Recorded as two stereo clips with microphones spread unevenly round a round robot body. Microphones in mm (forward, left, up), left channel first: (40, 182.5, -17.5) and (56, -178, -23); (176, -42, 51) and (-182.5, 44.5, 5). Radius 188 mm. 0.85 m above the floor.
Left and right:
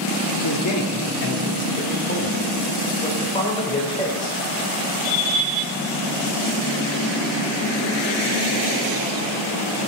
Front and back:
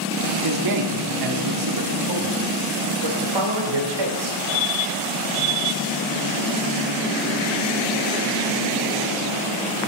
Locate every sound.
0.4 s a man speaking: 140° left, 2 m; by 4.4 s 170° left, 3.5 m